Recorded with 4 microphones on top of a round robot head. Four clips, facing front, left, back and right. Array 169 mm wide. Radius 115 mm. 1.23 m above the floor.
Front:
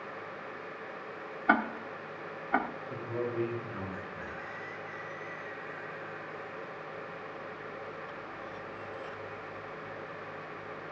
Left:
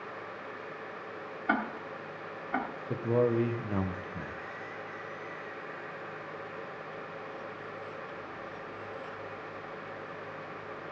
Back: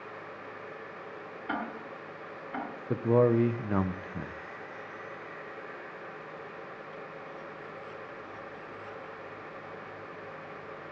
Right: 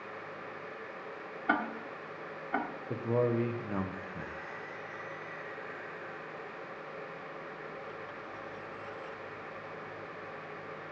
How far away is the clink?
I don't hear a clink.